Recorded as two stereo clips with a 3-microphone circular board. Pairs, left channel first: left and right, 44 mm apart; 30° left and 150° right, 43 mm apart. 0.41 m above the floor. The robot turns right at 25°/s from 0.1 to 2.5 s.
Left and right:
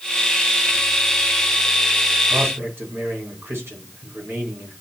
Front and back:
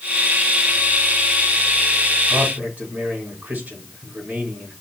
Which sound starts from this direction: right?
A man speaking, at 2.3 s.